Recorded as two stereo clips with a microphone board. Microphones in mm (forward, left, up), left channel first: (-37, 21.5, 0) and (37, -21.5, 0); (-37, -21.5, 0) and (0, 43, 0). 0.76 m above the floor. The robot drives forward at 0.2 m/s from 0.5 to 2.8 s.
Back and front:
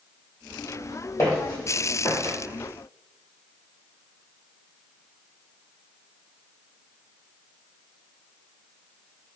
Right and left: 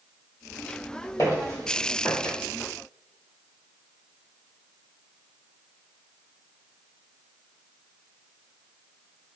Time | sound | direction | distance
1.2 | footsteps | 165° right | 1.7 m